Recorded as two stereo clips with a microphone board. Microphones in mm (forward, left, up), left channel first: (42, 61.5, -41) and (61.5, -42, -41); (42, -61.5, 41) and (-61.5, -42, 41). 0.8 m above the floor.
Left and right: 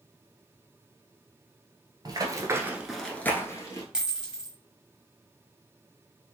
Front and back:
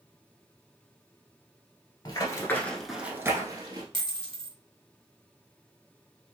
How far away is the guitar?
No guitar in this recording.